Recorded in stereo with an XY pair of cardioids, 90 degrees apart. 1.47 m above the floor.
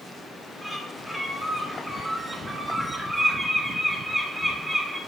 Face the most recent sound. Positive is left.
turn(degrees=-5)